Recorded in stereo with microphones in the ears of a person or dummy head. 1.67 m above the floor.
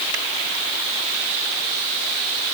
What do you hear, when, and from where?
Only background noise.